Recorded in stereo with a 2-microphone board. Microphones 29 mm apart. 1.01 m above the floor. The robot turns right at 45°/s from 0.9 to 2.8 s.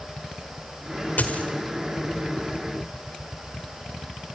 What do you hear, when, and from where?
1.2 s a dropped coin: 60° left (ahead or behind), 1.8 m; by 1.4 s 50° left (ahead or behind), 1.8 m